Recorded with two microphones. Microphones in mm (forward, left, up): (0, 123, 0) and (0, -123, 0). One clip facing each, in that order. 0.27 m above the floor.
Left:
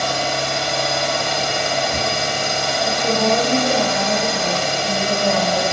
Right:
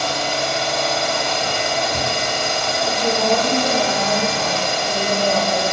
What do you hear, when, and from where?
0.0 s an engine running: 70° left (ahead or behind), 1.3 m
2.8 s a woman speaking: 5° left (ahead or behind), 1.3 m